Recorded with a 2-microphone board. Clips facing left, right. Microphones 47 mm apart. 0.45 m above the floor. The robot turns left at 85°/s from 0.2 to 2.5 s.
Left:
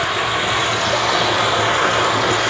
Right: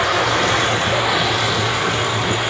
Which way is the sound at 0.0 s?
95° right.